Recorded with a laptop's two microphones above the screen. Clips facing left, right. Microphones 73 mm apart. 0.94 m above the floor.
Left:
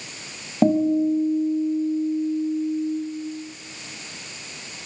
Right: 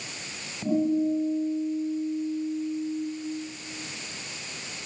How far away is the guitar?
About 6 m.